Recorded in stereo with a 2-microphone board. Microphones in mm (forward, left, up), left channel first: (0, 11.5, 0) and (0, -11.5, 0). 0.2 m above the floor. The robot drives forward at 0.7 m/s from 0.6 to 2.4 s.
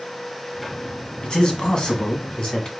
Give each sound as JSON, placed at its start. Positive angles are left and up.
{"t": 1.2, "sound": "a man speaking", "side_deg": 40, "distance_m": 1.3}